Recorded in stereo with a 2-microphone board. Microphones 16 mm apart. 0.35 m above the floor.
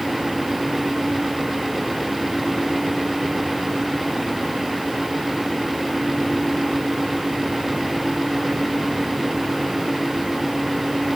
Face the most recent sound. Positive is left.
No sound to turn to.